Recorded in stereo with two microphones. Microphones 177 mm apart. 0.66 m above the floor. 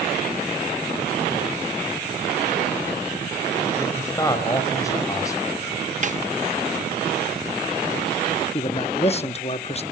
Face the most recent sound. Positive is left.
turn(degrees=35)  # may be behind; listen again after turning